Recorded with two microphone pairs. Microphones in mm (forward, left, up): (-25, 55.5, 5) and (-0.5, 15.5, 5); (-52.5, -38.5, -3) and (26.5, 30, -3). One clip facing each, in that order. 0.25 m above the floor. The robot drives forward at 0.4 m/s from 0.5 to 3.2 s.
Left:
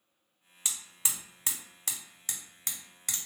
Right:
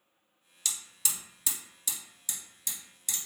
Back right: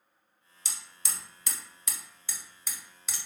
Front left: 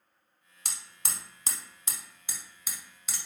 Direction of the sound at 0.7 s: 60° left.